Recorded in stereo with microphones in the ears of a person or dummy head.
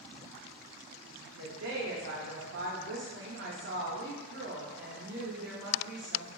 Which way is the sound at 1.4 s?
65° right (ahead or behind).